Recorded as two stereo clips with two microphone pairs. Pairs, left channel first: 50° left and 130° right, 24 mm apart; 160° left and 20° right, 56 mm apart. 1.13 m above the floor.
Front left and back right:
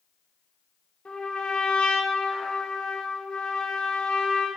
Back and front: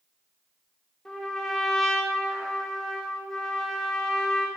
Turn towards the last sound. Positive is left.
turn(degrees=85)